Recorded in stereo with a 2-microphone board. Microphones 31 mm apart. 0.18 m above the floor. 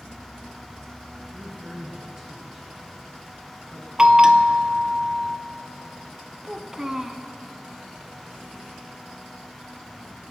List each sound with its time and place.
1.3 s a man speaking: 25° right (ahead or behind), 3 m; by 3.9 s 25° left (ahead or behind), 2 m
4.0 s a bell: 20° right (ahead or behind), 0.6 m
6.4 s a child speaking: 15° right (ahead or behind), 0.8 m